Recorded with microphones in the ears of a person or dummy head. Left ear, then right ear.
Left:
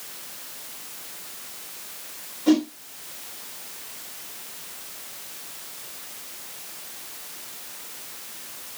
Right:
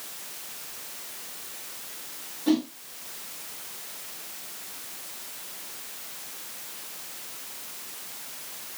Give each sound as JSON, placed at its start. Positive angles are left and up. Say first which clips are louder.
{"t": 2.5, "sound": "a whoosh", "louder": "left 5 dB", "side_deg": -5, "distance_m": 1.2}